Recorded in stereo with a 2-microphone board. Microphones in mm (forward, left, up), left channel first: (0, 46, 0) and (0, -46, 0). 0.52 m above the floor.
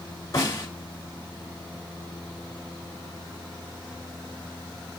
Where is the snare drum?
35° left (ahead or behind), 2.5 m.